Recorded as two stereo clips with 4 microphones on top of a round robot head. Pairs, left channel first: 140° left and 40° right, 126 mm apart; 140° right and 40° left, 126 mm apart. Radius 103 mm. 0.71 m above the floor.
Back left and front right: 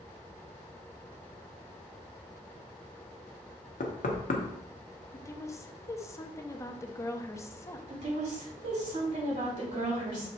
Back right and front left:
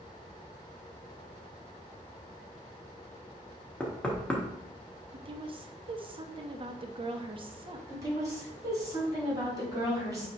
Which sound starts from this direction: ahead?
A woman speaking, at 7.9 s.